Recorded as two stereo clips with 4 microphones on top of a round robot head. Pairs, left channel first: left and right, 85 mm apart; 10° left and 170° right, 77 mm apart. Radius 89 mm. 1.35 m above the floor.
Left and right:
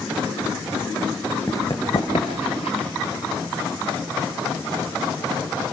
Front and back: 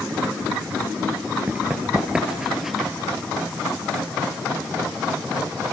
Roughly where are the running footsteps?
Behind left.